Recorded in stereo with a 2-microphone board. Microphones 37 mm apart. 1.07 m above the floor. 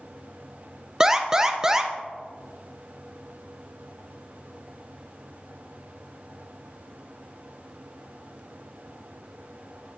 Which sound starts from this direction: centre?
An alarm, at 1.0 s.